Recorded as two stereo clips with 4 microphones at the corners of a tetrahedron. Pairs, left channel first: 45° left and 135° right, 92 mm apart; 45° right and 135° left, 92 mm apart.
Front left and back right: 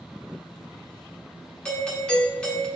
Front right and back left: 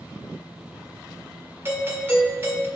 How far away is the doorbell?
About 1.6 m.